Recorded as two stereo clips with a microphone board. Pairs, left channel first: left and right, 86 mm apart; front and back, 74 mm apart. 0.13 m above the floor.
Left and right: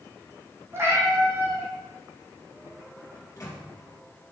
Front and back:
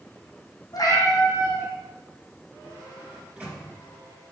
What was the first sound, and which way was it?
A cat meowing, 30° right.